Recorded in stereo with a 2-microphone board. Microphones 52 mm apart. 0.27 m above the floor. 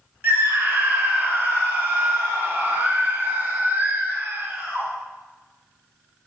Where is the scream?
40° right (ahead or behind), 1.5 m.